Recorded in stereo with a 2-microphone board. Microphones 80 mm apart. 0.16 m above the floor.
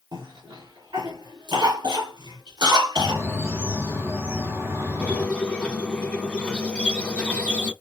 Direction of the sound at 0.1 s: 65° right (ahead or behind).